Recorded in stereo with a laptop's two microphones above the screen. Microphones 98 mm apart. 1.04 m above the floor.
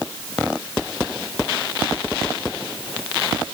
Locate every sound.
Only background noise.